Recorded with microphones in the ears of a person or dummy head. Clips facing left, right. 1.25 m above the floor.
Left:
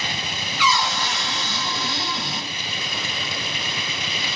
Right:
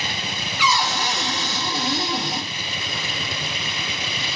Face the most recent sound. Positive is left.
turn(degrees=-30)  # may be behind; listen again after turning